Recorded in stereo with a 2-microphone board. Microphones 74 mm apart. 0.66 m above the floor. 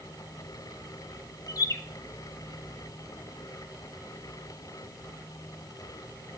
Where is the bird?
50° left (ahead or behind), 1.0 m.